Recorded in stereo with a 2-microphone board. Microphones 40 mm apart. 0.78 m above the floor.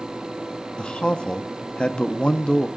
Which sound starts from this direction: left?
A man speaking, at 0.8 s.